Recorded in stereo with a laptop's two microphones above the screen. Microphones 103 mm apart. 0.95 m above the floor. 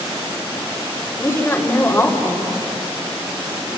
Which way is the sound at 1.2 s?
20° left (ahead or behind).